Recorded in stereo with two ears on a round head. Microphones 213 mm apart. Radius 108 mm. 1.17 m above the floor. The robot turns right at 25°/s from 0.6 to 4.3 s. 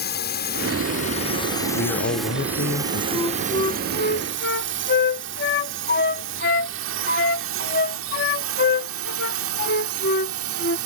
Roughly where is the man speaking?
Left.